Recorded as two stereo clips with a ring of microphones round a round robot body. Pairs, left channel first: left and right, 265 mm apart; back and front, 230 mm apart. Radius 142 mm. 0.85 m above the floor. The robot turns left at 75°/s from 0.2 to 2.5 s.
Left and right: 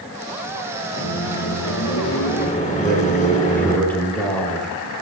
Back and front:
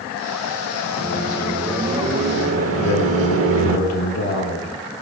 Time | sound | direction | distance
1.0 | a microwave | 140° left | 2 m
2.8 | a man speaking | 175° left | 4 m